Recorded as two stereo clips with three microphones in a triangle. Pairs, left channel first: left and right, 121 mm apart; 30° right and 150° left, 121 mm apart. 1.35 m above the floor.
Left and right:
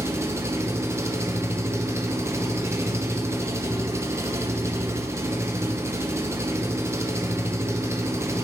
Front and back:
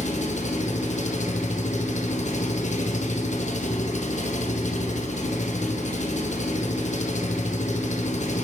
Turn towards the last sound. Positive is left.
turn(degrees=-20)